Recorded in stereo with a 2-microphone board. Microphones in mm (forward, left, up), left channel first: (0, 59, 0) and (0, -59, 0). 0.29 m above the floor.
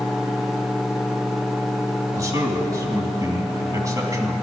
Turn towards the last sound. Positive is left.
turn(degrees=-25)  # may be behind; listen again after turning